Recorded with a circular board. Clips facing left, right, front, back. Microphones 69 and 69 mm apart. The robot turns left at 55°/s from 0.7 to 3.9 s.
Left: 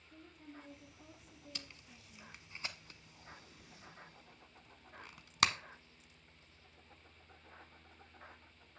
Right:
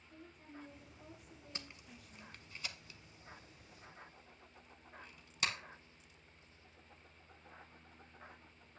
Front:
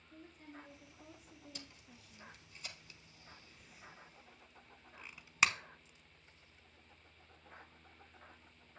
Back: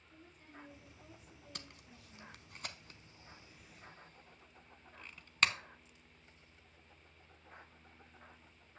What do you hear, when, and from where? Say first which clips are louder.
0.1 s a woman speaking: even, front 4 dB; 90° right, 3.5 m; by 2.4 s 175° left, 3.5 m
1.6 s tape being pulled: right 2 dB, back 1 dB; 150° right, 0.7 m; by 5.5 s 80° left, 0.7 m